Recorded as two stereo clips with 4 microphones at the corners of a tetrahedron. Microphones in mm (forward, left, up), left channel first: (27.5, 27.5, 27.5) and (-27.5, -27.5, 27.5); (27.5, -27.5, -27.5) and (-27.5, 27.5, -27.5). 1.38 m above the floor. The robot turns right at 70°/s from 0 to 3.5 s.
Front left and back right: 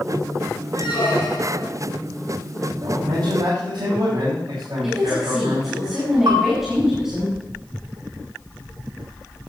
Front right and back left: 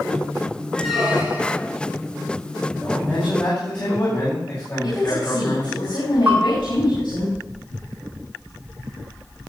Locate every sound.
0.7 s a squeak: 35° left, 4 m; by 1.7 s 100° left, 4 m
2.8 s a man speaking: 150° right, 6 m; by 5.8 s 100° right, 6 m
4.8 s a woman speaking: 50° right, 5.5 m
6.3 s a bell: 160° right, 4 m